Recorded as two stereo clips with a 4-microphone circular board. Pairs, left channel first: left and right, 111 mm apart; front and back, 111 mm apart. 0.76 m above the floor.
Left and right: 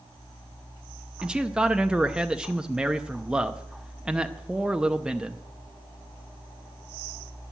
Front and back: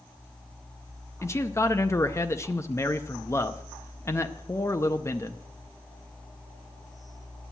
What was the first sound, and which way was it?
A man speaking, 20° right.